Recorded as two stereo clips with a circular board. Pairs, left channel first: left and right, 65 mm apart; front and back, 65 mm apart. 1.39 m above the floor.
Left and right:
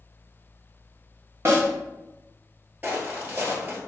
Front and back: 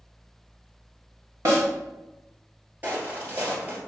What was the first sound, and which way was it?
A snare drum, 140° right.